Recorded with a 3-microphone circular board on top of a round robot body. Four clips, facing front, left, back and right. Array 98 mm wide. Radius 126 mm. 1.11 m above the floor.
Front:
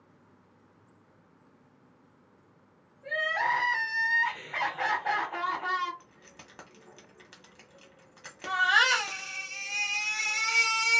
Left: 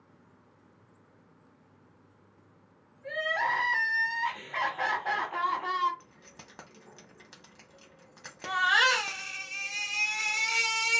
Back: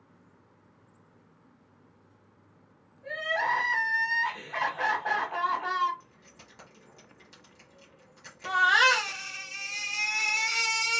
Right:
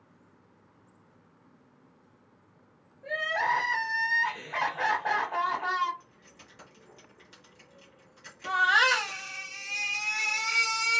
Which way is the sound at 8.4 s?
175° right.